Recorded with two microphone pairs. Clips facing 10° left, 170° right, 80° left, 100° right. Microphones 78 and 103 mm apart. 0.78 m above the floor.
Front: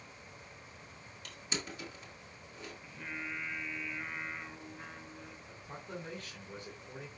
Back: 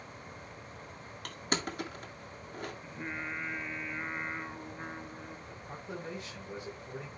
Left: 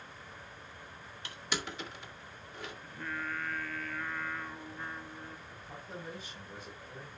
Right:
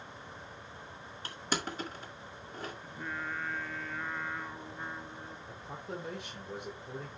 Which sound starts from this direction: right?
A man speaking, at 5.5 s.